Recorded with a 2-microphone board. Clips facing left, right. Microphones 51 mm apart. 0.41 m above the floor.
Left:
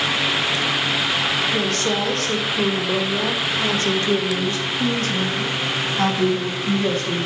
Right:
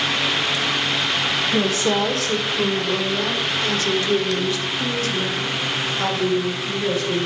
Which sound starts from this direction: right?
A woman speaking, at 1.5 s.